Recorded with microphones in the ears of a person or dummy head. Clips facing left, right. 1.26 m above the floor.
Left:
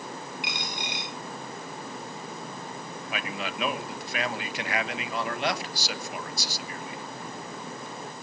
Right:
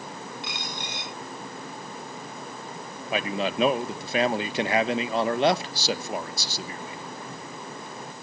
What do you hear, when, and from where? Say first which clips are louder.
0.4 s a dropped coin: even; 20° left (ahead or behind), 7 m
3.1 s a man speaking: right 8 dB; 25° right (ahead or behind), 1.1 m